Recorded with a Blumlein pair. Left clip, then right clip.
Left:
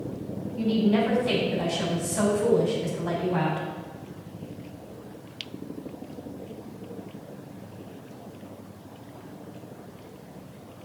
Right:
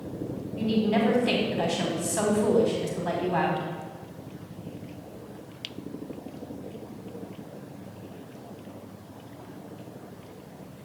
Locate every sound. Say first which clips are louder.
0.6 s a woman speaking: left 1 dB; 65° right, 1.2 m